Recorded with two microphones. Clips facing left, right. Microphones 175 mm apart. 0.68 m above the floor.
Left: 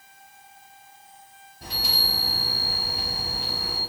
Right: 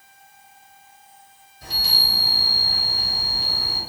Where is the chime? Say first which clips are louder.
Left 1 dB; 60° left (ahead or behind), 1.8 m.